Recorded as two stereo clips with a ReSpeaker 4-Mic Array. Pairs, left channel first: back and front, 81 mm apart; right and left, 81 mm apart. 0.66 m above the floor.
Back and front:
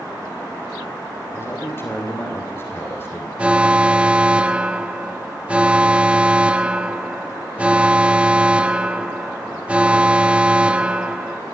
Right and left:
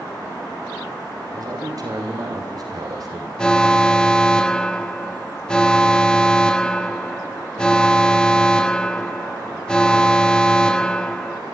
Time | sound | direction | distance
1.3 | a man speaking | 120° left | 3 m
3.4 | an alarm | 30° right | 0.8 m